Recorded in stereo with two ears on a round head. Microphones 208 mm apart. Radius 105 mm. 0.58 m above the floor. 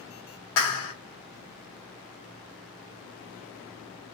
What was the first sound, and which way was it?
A clap, 60° left (ahead or behind).